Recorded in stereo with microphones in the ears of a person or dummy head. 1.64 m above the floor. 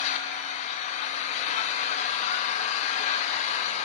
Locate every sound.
0.0 s an engine running: 45° left (ahead or behind), 0.7 m